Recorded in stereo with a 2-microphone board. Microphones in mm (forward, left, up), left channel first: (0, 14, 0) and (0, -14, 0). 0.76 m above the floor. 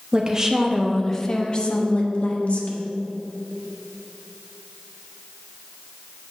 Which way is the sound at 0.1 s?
30° right (ahead or behind).